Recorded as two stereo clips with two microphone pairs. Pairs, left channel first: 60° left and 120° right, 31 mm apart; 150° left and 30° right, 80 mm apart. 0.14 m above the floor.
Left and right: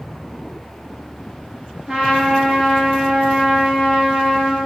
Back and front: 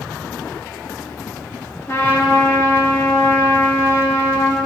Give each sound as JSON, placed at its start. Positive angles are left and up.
{"t": 1.9, "sound": "a trumpet", "azimuth_deg": -165, "distance_m": 2.0}